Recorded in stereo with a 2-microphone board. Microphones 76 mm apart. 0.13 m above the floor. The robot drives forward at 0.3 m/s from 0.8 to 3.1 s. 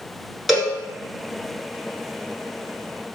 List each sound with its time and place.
0.5 s a cowbell: centre (ahead or behind), 0.9 m